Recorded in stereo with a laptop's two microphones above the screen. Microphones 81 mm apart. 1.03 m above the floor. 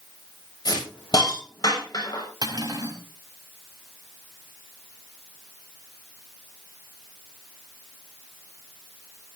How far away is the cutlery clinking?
About 4 m.